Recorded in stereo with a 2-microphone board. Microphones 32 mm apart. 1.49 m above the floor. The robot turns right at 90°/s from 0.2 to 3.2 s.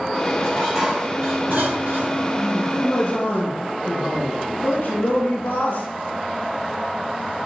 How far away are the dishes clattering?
About 7 m.